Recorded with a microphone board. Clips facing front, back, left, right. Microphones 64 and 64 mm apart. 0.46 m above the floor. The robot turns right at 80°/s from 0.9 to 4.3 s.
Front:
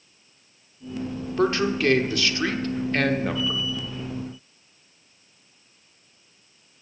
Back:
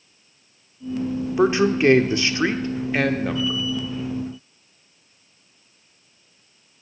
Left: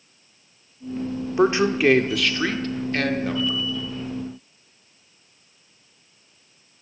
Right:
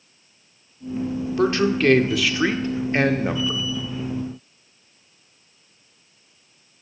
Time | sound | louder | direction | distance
1.4 | a man speaking | back 4 dB, left 1 dB | 120° left | 0.7 m